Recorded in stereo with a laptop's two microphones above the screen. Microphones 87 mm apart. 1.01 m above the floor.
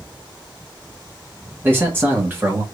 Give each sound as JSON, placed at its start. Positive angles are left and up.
{"t": 1.6, "sound": "a man speaking", "side_deg": -25, "distance_m": 1.4}